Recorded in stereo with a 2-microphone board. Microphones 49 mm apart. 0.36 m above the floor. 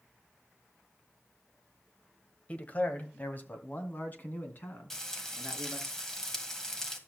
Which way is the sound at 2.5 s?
30° left (ahead or behind).